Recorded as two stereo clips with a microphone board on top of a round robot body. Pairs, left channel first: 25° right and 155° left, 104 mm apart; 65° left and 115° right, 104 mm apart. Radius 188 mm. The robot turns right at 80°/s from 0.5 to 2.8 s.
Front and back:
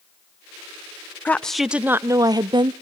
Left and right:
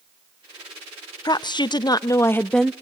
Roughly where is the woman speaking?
Ahead left.